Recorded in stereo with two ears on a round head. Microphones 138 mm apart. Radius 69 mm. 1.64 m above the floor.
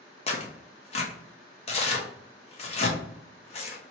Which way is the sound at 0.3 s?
40° left (ahead or behind).